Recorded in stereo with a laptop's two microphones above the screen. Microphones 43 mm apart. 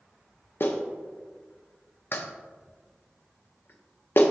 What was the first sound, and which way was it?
A clap, 55° left (ahead or behind).